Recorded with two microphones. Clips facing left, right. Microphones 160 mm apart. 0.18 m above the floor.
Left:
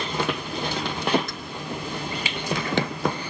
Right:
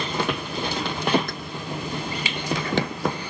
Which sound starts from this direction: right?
Keys jangling, at 1.3 s.